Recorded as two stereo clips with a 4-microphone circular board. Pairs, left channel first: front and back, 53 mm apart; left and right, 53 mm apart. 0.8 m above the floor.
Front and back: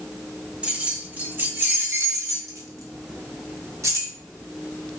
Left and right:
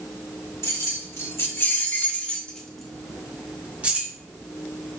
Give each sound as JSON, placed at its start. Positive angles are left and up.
{"t": 0.6, "sound": "keys jangling", "azimuth_deg": 115, "distance_m": 1.3}